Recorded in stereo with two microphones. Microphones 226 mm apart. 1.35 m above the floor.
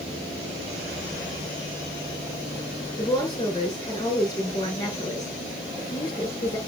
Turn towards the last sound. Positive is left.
turn(degrees=20)  # may be behind; listen again after turning